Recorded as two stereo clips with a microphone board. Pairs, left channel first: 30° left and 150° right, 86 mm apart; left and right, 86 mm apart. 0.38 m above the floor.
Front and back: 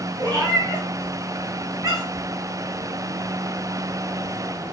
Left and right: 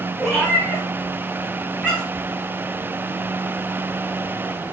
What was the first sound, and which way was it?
A cat meowing, straight behind.